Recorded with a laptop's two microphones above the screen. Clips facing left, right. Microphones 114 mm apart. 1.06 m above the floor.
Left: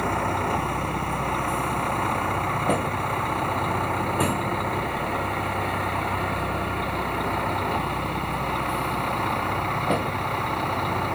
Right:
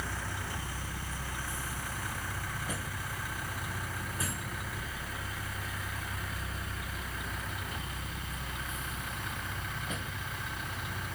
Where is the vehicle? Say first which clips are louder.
Left 15 dB; 65° left (ahead or behind).